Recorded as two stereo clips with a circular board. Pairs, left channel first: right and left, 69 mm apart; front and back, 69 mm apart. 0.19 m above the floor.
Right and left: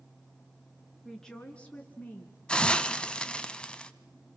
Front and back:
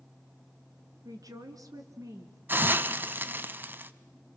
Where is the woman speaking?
175° right, 3 m; by 2.4 s 145° right, 4 m.